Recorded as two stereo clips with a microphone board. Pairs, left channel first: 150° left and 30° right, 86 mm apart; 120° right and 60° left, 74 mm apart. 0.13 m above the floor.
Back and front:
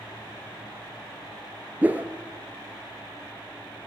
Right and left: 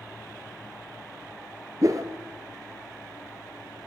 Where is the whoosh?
35° left, 0.8 m.